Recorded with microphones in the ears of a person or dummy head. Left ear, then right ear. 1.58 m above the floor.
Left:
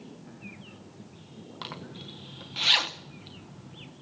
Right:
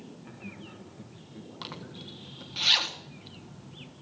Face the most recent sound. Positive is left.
turn(degrees=20)  # may be behind; listen again after turning